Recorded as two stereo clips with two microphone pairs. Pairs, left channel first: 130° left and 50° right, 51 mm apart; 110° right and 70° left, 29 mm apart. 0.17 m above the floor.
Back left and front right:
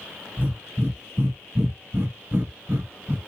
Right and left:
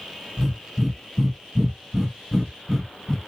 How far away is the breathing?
About 0.9 m.